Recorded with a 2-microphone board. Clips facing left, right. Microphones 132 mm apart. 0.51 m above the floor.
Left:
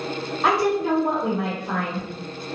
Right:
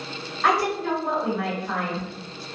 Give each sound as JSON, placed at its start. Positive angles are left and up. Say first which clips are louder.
{"t": 0.4, "sound": "a woman speaking", "louder": "left 2 dB", "side_deg": 25, "distance_m": 1.7}